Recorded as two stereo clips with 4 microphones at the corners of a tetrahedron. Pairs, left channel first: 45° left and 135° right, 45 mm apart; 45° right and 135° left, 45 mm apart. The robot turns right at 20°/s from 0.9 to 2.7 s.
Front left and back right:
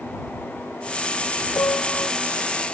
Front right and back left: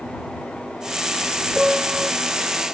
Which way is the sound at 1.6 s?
60° left.